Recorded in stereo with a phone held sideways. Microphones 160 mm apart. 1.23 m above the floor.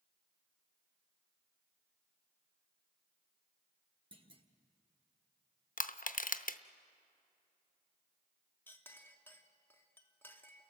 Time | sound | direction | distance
4.1 | a clunk | 35° right (ahead or behind) | 1.4 m
5.8 | crushing | 60° left (ahead or behind) | 0.7 m
8.7 | a clink | 15° left (ahead or behind) | 1.4 m